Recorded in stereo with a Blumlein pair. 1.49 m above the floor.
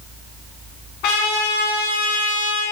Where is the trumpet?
45° left, 2 m.